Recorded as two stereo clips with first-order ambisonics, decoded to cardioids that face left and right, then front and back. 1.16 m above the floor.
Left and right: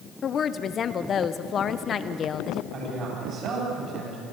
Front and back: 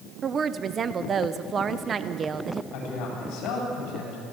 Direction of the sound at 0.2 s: 130° left.